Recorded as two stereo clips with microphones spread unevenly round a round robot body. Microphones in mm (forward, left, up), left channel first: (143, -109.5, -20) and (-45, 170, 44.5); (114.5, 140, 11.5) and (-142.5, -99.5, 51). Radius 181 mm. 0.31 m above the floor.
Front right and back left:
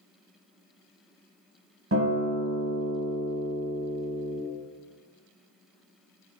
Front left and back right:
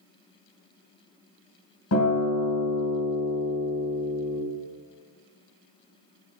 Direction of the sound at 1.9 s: 75° left.